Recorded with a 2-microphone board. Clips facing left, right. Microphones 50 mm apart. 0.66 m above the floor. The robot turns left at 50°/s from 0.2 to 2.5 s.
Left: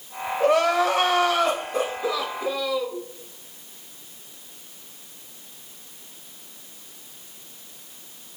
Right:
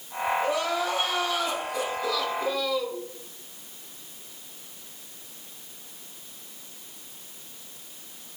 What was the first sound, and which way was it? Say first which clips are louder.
Crying: left 7 dB; 110° left.